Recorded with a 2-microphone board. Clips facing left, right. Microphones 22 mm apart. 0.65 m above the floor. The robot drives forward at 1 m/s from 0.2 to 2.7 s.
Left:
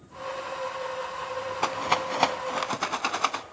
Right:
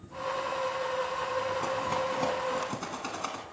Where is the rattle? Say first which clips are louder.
Left 4 dB; 55° left (ahead or behind), 1.0 m; by 3.4 s 50° left (ahead or behind), 1.1 m.